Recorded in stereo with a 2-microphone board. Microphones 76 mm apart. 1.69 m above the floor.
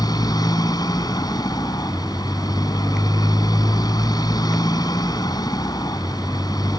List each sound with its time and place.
0.0 s a motorcycle: 65° left (ahead or behind)